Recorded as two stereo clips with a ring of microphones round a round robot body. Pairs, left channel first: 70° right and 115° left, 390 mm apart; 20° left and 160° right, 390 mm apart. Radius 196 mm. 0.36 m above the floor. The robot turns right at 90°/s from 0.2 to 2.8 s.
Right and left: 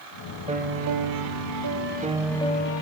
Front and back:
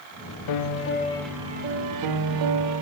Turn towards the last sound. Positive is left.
turn(degrees=-110)